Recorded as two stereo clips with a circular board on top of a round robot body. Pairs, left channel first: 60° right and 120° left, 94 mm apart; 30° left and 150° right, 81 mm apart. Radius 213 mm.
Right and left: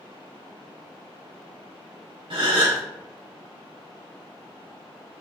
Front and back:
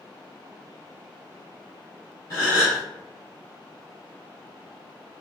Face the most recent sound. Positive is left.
turn(degrees=85)